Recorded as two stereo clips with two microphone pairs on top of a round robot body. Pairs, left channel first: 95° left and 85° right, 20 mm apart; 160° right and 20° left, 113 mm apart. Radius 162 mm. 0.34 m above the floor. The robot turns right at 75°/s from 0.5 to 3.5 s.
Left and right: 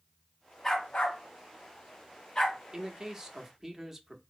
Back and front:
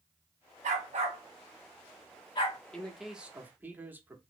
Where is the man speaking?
85° right, 1.1 m; by 4.2 s 30° right, 1.1 m.